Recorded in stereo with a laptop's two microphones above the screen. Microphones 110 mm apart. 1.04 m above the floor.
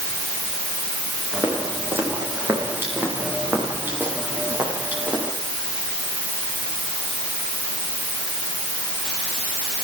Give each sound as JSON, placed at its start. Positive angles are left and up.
{"t": 1.3, "sound": "footsteps", "side_deg": -20, "distance_m": 9.5}